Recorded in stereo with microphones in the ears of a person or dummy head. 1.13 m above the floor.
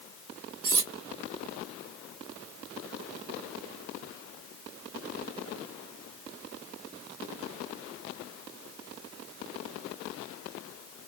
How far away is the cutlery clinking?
About 1.0 m.